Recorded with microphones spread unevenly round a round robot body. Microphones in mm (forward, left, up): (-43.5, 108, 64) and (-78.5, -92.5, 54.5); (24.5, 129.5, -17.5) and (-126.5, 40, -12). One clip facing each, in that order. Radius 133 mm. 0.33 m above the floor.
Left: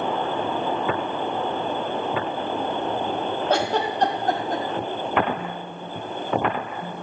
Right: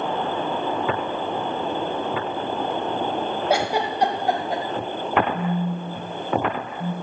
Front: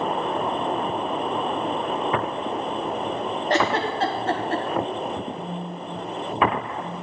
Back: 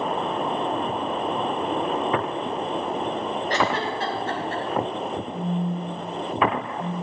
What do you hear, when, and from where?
3.5 s a giggle: 20° right, 1.8 m
5.3 s a phone buzzing: 90° right, 6 m